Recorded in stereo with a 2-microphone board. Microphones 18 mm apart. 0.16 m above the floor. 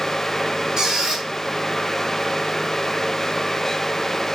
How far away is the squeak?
About 2 m.